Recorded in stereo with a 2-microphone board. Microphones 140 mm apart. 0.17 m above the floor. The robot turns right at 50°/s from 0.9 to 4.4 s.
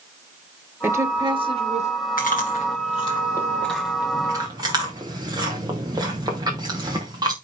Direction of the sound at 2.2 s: 80° left.